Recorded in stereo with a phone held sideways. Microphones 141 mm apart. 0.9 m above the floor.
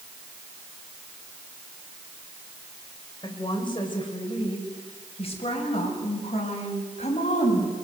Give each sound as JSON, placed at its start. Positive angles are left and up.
{"t": 3.2, "sound": "a woman speaking", "side_deg": 30, "distance_m": 4.5}